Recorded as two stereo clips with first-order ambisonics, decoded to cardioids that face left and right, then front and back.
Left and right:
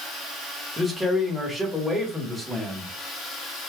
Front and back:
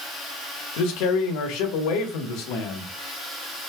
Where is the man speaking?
Straight ahead, 1.4 m.